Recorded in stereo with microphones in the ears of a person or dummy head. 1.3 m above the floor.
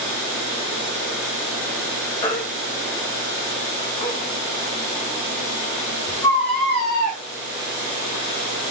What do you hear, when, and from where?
2.2 s a baby crying: 20° left (ahead or behind), 0.7 m